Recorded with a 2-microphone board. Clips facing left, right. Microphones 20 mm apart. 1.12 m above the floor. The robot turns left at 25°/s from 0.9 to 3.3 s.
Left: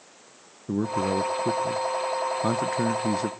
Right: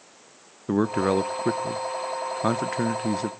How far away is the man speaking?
About 0.7 m.